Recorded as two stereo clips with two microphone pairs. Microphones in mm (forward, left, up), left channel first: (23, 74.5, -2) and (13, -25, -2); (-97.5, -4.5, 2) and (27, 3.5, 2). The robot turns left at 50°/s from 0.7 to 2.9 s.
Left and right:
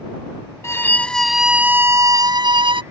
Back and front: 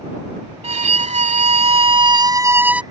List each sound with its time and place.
0.6 s a violin: 25° left; by 2.8 s 80° right